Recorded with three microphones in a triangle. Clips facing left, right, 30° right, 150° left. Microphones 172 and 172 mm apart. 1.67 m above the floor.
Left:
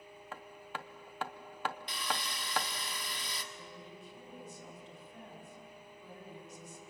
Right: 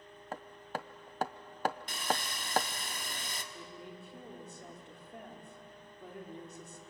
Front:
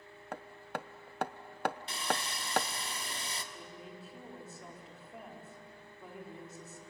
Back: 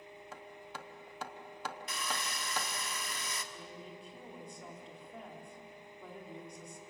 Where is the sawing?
80° right, 1.5 m.